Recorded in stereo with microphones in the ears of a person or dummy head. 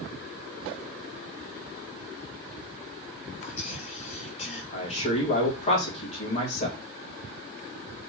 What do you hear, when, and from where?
3.4 s whispering: 45° left (ahead or behind), 1.3 m
4.7 s a man speaking: 35° left (ahead or behind), 1.8 m